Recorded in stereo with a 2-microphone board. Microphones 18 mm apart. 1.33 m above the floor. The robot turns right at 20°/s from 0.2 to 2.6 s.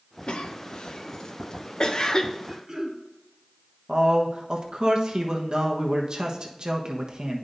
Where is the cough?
70° left (ahead or behind), 0.7 m; by 2.4 s 35° left (ahead or behind), 0.7 m.